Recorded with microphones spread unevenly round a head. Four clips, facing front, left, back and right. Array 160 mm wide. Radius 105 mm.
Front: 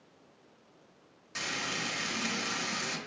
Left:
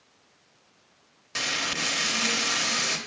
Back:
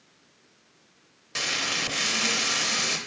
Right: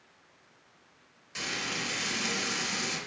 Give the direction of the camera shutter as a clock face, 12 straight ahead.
No camera shutter in this recording.